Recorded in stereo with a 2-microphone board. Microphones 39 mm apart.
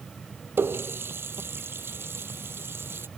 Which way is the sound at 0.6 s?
80° right.